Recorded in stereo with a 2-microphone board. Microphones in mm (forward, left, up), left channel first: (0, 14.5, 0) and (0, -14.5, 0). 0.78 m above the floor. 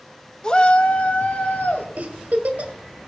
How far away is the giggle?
About 1.7 m.